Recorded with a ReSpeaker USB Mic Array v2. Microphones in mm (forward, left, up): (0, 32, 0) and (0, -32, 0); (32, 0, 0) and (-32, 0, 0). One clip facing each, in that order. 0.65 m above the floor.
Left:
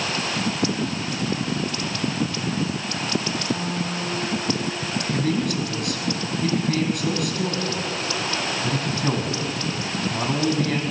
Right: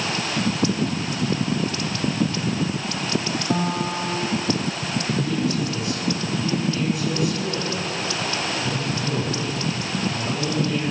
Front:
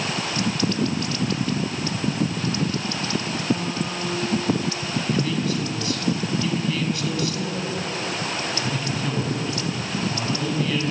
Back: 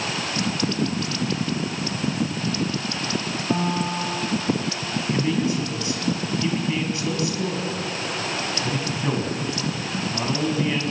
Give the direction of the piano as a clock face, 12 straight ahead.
4 o'clock.